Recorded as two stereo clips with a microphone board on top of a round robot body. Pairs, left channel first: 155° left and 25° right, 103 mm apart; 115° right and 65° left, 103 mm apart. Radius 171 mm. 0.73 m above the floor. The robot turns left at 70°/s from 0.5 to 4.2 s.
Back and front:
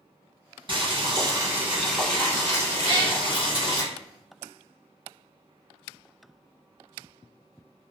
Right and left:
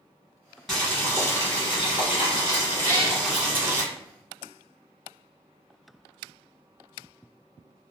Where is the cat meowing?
45° right, 1.2 m; by 3.2 s 70° right, 1.2 m.